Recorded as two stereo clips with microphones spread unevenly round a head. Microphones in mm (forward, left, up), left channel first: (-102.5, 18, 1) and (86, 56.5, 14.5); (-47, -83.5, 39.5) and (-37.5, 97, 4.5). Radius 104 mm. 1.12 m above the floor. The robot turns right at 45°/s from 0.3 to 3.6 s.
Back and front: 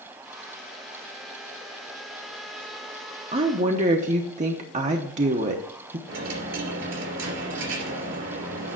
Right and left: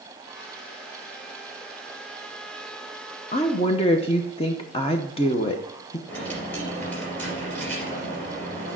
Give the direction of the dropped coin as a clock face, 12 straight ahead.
1 o'clock.